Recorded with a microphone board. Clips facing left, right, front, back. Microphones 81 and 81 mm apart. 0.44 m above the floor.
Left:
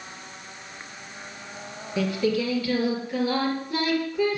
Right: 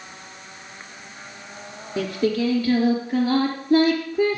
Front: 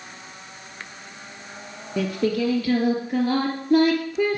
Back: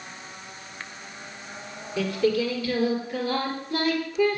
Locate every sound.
2.0 s singing: 35° right, 4.5 m